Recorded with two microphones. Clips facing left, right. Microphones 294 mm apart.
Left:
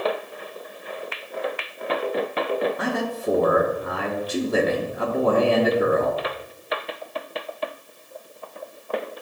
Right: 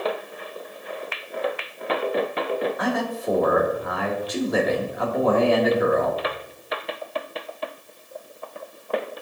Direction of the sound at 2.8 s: 35° left (ahead or behind).